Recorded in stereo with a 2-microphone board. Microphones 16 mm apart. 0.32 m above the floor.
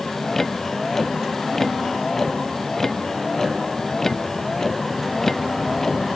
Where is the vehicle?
20° left (ahead or behind); by 6.2 s 25° left (ahead or behind).